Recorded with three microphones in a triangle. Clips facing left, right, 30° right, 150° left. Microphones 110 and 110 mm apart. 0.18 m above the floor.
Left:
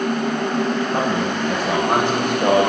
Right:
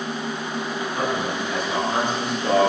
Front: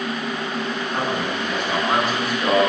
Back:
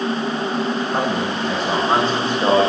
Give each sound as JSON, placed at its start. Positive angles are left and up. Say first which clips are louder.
{"t": 0.9, "sound": "a man speaking", "louder": "left 4 dB, back 3 dB", "azimuth_deg": 95, "distance_m": 9.5}